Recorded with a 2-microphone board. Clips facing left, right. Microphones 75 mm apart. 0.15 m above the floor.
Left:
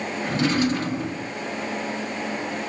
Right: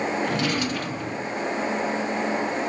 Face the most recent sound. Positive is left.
turn(degrees=30)  # may be behind; listen again after turning